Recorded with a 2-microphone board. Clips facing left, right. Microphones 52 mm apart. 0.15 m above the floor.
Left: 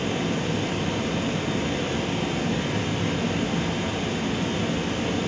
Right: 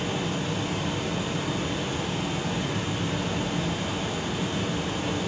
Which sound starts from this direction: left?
Running water, at 0.0 s.